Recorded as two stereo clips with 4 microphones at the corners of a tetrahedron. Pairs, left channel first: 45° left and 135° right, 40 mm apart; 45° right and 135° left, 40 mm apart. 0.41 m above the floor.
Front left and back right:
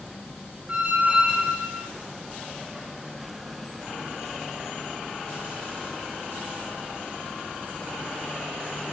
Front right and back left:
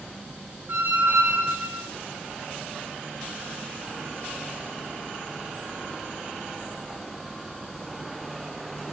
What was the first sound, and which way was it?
A squeak, 160° left.